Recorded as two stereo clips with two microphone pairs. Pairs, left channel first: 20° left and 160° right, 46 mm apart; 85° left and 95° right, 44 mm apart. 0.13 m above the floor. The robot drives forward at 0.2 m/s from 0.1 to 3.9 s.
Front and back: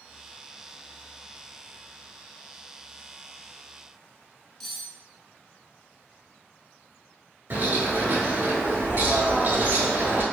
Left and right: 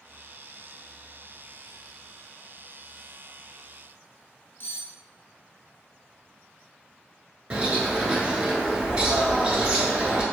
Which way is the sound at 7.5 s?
145° right.